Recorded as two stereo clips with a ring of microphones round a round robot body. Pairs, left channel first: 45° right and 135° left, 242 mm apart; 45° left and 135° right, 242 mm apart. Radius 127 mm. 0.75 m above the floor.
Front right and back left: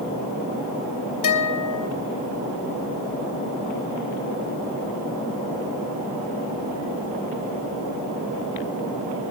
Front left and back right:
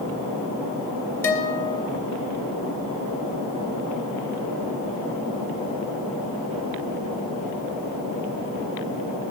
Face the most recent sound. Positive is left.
turn(degrees=-35)